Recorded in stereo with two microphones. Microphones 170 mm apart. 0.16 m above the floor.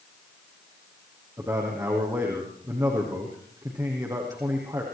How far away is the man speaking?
About 6 m.